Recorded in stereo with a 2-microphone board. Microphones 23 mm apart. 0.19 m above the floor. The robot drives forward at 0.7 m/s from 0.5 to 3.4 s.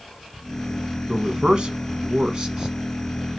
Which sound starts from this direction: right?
A man speaking, at 1.1 s.